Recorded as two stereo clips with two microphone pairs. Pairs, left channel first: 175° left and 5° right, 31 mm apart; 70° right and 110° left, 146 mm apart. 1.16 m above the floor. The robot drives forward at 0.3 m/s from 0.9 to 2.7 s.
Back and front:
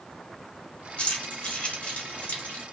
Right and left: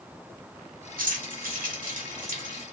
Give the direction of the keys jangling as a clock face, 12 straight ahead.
8 o'clock.